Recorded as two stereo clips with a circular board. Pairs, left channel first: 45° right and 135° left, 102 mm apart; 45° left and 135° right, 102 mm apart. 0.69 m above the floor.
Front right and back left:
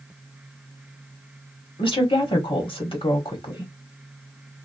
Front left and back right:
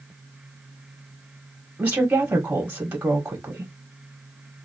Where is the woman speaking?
60° right, 1.5 m.